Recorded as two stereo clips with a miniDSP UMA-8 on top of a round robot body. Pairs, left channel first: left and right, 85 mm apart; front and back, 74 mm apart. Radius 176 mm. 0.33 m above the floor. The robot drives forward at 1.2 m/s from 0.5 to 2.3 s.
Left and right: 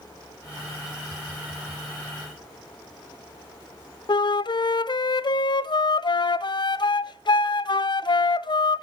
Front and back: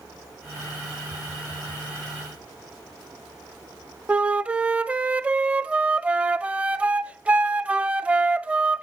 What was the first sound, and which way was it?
A flute, 110° left.